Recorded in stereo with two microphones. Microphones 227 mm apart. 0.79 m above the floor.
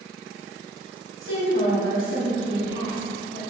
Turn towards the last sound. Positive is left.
turn(degrees=75)  # may be behind; listen again after turning